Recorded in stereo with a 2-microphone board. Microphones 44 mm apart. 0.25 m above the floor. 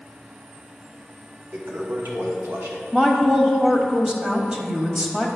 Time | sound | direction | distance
1.5 | a toilet flushing | 65° right (ahead or behind) | 1.2 m
2.9 | a woman speaking | 15° right (ahead or behind) | 1.0 m